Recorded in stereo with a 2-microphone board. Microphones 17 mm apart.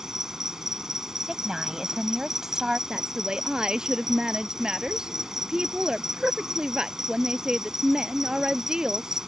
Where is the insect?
30° right (ahead or behind).